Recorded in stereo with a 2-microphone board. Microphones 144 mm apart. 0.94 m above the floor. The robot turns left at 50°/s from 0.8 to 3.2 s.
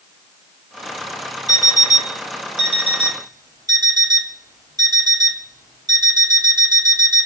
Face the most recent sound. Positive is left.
turn(degrees=-150)